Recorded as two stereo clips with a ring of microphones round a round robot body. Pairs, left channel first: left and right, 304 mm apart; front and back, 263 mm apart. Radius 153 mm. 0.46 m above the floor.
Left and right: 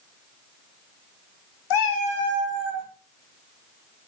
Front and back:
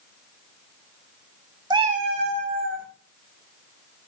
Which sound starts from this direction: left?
A cat meowing, at 1.7 s.